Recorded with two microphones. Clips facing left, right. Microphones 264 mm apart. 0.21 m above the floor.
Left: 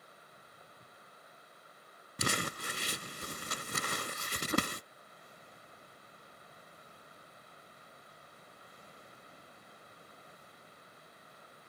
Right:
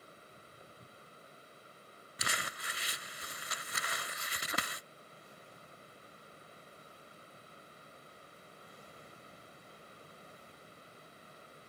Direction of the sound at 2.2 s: 50° left (ahead or behind).